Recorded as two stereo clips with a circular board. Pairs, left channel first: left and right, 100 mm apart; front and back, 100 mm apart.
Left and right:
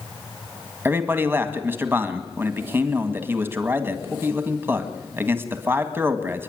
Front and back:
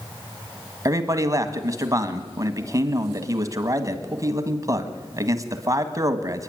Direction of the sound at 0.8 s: 145° right.